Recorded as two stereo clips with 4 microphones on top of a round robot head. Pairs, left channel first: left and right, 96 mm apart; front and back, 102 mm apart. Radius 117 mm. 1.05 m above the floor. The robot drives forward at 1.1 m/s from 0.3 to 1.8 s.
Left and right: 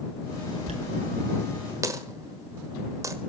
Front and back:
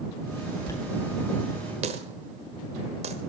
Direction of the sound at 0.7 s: 70° right.